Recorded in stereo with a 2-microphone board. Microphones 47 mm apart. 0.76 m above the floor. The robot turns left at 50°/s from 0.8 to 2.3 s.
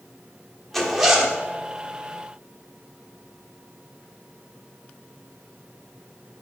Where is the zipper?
5° left (ahead or behind), 0.9 m; by 1.4 s 25° right (ahead or behind), 0.9 m.